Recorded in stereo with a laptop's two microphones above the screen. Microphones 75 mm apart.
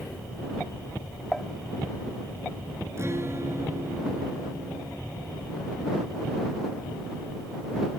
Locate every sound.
1.3 s dishes clattering: 10° left (ahead or behind)
3.0 s a guitar: 35° right (ahead or behind)